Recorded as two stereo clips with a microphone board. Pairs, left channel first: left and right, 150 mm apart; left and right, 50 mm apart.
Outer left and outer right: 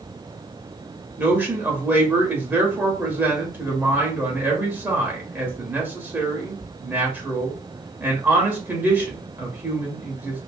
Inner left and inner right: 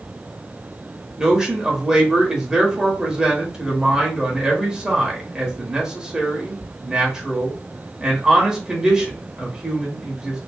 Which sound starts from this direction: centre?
A man speaking, at 1.2 s.